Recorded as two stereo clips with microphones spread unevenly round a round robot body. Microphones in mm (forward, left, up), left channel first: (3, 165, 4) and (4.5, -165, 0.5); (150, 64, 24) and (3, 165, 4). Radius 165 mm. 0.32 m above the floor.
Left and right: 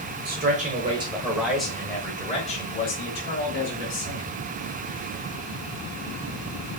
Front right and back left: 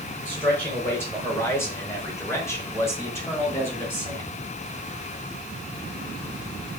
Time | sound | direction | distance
0.2 | a man speaking | 120° right | 1.4 m